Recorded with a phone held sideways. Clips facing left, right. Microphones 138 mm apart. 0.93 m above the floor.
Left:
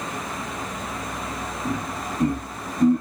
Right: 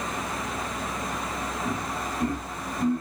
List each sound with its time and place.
1.6 s laughter: 30° left (ahead or behind), 1.0 m; by 3.0 s 45° left (ahead or behind), 0.8 m